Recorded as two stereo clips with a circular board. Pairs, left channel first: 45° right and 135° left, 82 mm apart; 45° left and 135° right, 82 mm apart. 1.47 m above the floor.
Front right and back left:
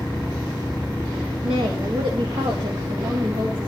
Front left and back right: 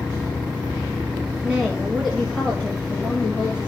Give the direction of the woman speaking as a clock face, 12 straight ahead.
7 o'clock.